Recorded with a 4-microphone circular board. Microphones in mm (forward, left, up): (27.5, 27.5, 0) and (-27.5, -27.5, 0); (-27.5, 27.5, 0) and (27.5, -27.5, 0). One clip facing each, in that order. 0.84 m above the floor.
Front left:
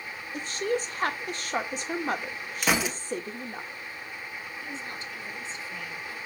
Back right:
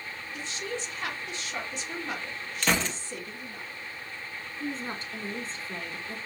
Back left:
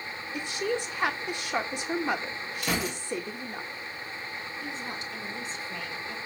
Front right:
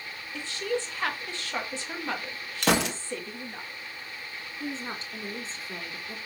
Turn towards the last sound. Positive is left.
turn(degrees=-95)